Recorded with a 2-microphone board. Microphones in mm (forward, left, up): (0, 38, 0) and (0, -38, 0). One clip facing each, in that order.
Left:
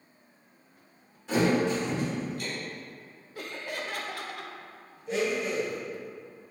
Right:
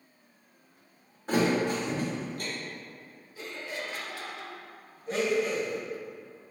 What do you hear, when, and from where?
1.3 s a thud: 45° right (ahead or behind), 1.5 m
3.4 s laughter: 60° left (ahead or behind), 0.6 m
5.1 s a blender: 40° right (ahead or behind), 1.7 m